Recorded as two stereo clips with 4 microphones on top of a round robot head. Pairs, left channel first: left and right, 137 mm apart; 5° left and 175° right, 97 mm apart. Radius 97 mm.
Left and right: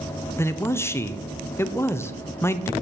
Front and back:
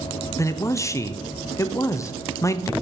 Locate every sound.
0.4 s a man speaking: 30° left, 0.6 m